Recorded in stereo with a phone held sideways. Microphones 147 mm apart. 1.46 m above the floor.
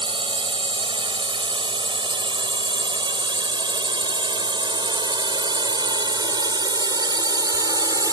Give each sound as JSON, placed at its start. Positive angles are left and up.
{"t": 0.0, "sound": "a drone", "side_deg": -35}